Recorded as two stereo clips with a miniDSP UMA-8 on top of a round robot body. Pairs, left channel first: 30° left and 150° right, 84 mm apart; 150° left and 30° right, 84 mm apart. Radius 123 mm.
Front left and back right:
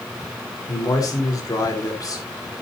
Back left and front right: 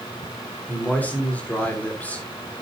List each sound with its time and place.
0.7 s a man speaking: 80° left, 4.5 m